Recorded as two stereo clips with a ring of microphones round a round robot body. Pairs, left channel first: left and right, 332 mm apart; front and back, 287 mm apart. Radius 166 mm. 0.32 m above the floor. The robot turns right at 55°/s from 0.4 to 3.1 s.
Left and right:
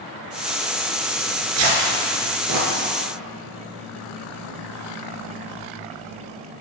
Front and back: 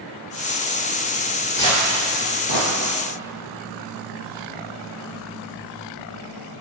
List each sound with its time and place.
1.6 s tearing paper: 80° right, 1.2 m; by 2.7 s 20° right, 1.2 m